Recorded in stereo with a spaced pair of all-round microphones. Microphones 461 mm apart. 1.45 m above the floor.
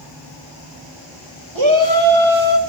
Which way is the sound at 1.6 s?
80° right.